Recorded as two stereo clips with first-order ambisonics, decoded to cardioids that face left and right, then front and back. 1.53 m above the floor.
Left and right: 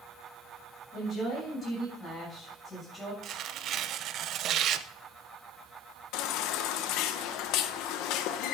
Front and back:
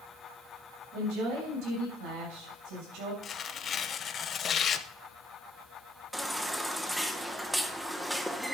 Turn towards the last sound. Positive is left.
turn(degrees=90)